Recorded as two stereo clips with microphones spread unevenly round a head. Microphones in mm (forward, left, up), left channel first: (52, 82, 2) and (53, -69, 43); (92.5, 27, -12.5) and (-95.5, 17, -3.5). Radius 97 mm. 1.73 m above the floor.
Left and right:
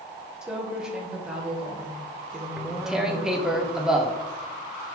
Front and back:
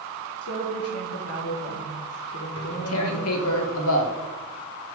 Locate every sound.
0.4 s a woman speaking: 10° right, 1.6 m
2.6 s tearing paper: 10° right, 0.8 m